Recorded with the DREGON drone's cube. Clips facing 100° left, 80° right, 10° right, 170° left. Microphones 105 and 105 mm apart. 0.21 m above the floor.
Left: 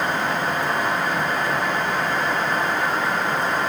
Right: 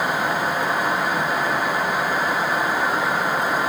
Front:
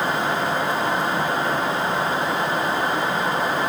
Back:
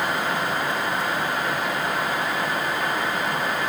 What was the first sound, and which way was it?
Only background noise.